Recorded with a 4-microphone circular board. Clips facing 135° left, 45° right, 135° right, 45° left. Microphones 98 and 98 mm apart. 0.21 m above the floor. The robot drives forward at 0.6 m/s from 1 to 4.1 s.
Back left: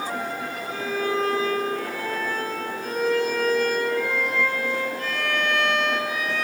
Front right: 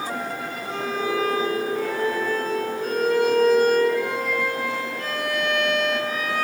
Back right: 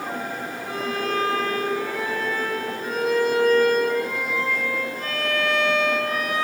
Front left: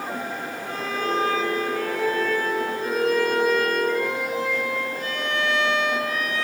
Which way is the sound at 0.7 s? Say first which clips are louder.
Front right 1 dB, even; 60° right.